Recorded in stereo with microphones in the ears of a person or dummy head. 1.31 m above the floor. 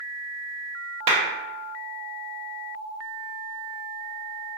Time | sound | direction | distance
1.1 | a clap | 35° right (ahead or behind) | 1.1 m